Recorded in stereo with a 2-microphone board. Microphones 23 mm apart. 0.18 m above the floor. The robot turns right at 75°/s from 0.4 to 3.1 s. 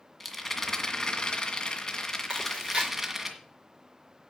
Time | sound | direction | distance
0.2 | a rattle | 15° left | 1.8 m
2.3 | chewing | 45° right (ahead or behind) | 4 m